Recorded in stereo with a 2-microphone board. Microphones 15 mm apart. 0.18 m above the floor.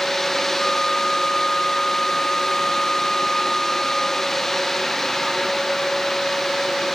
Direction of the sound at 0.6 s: 40° left (ahead or behind).